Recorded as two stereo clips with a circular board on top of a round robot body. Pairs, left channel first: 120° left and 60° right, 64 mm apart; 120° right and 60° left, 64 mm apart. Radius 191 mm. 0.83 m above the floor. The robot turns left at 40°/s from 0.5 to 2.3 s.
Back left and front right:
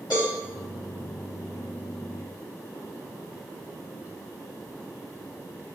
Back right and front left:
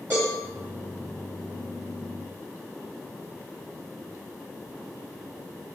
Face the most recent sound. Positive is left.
turn(degrees=40)